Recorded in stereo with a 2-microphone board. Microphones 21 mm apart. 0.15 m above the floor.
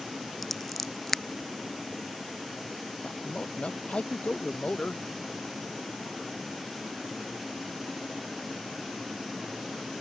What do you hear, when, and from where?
0.4 s scissors: 5° left (ahead or behind)
3.0 s a man speaking: 75° left (ahead or behind)